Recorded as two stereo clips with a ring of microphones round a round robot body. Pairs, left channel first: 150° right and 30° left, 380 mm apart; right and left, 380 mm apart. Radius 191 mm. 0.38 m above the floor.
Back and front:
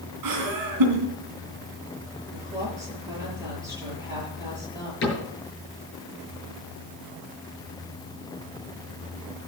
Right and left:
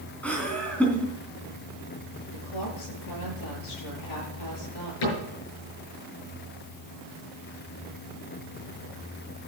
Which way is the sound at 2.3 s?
50° right.